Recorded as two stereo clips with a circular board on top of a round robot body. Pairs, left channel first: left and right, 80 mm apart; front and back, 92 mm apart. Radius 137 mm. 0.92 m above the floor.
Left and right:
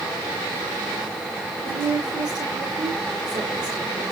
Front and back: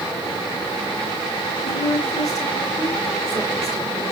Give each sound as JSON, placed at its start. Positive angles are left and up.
{"t": 1.6, "sound": "a woman speaking", "azimuth_deg": -55, "distance_m": 2.5}